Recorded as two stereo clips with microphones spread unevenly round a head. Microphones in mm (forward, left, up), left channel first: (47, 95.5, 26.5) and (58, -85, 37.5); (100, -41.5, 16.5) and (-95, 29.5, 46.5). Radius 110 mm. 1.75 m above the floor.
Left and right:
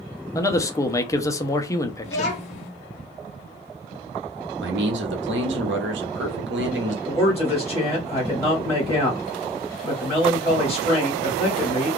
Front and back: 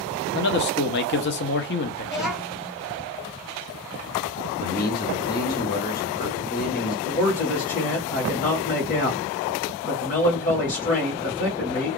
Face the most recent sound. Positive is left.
turn(degrees=20)